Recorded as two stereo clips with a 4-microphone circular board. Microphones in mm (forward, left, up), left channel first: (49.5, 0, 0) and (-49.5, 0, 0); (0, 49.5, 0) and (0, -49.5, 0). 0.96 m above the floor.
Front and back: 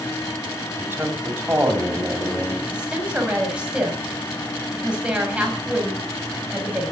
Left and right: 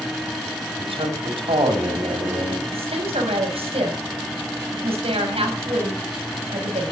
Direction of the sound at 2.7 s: 100° right.